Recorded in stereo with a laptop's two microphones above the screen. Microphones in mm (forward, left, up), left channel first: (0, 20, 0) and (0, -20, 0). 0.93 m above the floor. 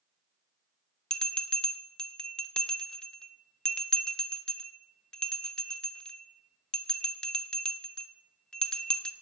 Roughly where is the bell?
Centre.